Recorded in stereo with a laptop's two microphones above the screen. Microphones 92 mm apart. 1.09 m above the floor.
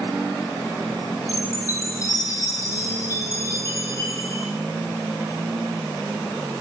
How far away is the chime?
About 9 m.